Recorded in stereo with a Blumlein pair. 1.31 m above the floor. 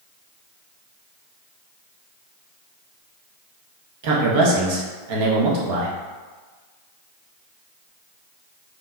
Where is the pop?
No pop in this recording.